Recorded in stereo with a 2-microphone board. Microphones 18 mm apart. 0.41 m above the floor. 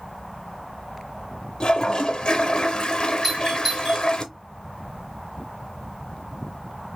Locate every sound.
1.6 s a toilet flushing: 55° left (ahead or behind), 0.7 m
3.2 s a doorbell: 20° right (ahead or behind), 1.7 m